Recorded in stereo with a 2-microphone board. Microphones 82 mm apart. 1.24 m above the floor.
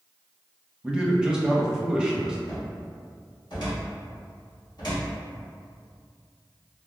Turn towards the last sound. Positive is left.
turn(degrees=60)  # may be behind; listen again after turning